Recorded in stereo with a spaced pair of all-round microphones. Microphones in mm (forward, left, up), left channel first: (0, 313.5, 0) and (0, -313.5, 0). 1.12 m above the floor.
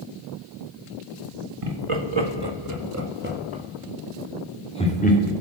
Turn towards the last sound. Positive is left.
turn(degrees=15)  # may be behind; listen again after turning